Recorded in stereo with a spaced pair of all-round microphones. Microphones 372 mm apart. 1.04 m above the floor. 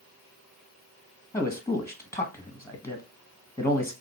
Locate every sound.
1.3 s a man speaking: 5° left (ahead or behind), 0.9 m